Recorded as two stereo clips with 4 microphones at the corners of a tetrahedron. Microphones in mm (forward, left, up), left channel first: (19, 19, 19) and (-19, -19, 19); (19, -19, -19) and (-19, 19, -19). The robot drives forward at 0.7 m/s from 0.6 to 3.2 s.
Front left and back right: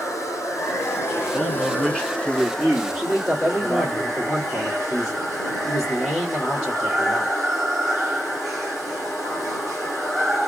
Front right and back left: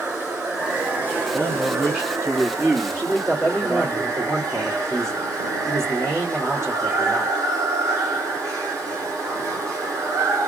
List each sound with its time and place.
0.0 s running water: 65° left, 1.3 m; by 10.5 s 135° left, 1.7 m
1.3 s a man speaking: 65° left, 1.7 m; by 4.0 s 150° left, 2.0 m
3.0 s a man speaking: 150° left, 1.9 m